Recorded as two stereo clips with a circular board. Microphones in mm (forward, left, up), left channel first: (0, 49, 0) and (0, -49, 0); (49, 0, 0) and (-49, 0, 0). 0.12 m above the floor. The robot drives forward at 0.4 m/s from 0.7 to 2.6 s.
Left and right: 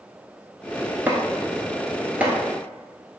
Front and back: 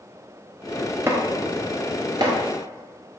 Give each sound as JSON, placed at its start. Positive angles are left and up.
{"t": 1.1, "sound": "chopping", "azimuth_deg": -145, "distance_m": 0.8}